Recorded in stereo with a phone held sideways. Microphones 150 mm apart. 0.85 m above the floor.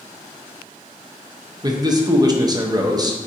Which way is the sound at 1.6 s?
25° right (ahead or behind).